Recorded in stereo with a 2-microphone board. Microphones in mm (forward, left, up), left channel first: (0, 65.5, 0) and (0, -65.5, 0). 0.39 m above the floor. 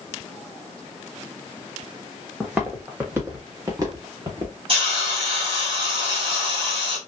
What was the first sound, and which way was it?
Footsteps, 10° right (ahead or behind).